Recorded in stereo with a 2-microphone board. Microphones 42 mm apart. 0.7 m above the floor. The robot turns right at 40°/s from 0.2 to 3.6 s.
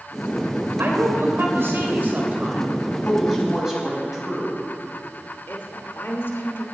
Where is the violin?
No violin in this recording.